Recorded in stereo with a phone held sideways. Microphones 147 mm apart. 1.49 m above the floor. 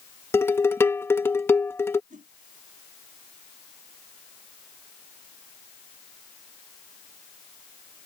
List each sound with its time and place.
0.3 s dishes clattering: 15° left (ahead or behind)
2.1 s a whoosh: 65° right (ahead or behind)